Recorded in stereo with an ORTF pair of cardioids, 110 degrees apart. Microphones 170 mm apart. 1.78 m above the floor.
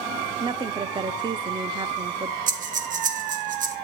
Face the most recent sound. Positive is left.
turn(degrees=-50)